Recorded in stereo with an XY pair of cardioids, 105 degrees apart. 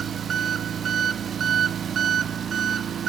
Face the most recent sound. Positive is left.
turn(degrees=-50)